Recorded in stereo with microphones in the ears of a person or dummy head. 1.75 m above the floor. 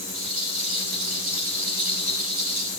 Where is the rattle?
40° right (ahead or behind), 4.5 m.